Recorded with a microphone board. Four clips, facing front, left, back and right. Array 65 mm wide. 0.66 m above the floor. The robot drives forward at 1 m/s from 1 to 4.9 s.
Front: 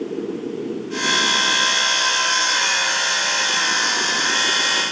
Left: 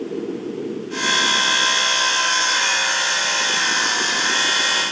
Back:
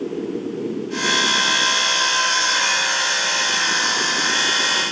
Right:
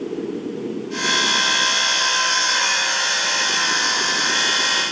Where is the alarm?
No alarm in this recording.